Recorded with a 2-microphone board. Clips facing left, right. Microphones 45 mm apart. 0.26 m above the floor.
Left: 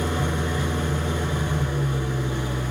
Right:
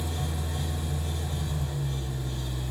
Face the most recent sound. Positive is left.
turn(degrees=70)  # may be behind; listen again after turning